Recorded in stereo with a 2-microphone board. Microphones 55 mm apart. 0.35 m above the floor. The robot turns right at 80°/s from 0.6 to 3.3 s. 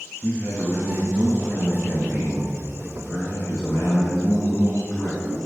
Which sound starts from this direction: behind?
A man speaking, at 0.2 s.